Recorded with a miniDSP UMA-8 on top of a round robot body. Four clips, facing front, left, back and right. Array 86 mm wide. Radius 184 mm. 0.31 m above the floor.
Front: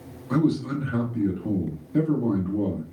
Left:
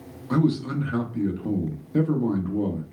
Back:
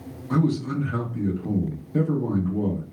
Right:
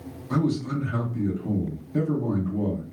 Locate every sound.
0.3 s a man speaking: 70° left, 1.0 m